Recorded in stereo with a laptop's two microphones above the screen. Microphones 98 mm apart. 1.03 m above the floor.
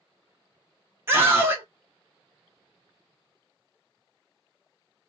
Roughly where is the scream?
Right.